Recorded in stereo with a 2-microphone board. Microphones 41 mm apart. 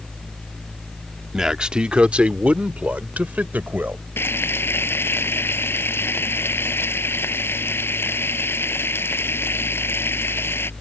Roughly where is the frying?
Left.